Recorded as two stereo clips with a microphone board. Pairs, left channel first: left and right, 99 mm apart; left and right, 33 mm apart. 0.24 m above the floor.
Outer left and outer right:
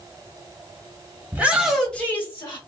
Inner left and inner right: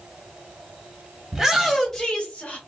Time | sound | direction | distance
1.3 | a shout | 20° right (ahead or behind) | 1.4 m